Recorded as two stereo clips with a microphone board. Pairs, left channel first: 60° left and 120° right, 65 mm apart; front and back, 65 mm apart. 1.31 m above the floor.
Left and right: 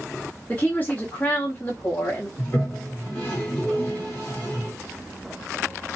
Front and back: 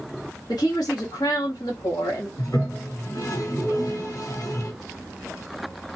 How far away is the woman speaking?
About 1.5 m.